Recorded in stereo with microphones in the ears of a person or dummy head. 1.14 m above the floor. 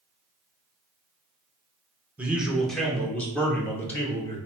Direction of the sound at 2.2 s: Centre (ahead or behind).